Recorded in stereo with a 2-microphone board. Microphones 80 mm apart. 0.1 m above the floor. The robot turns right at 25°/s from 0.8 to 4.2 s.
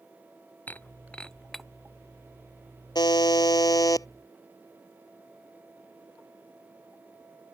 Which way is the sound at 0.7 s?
20° left (ahead or behind).